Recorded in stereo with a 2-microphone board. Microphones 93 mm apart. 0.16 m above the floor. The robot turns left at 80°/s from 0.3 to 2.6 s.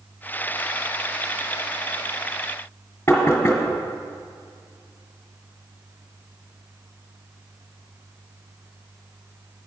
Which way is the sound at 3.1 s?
25° left (ahead or behind).